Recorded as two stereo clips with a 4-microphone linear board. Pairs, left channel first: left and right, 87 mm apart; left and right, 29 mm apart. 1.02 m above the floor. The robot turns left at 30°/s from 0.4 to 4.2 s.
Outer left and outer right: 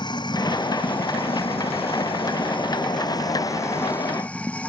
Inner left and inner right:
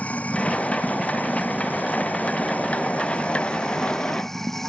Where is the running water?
130° left; by 4.7 s 15° left.